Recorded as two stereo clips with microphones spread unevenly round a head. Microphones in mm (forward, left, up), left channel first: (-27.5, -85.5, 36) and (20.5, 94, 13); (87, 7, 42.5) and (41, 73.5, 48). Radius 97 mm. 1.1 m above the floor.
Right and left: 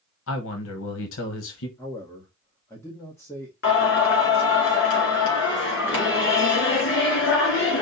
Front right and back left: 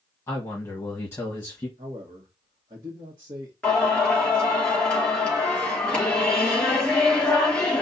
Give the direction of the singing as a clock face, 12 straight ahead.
5 o'clock.